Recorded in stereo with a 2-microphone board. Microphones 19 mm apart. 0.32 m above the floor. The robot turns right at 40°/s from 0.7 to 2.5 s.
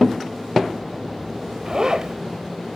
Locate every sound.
1.6 s a zipper: 40° right (ahead or behind), 0.5 m